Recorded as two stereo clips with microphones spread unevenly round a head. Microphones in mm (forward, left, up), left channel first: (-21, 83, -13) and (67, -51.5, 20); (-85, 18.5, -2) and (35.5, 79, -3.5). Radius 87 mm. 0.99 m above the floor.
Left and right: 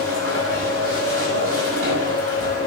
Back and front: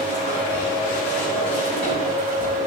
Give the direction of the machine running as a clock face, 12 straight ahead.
3 o'clock.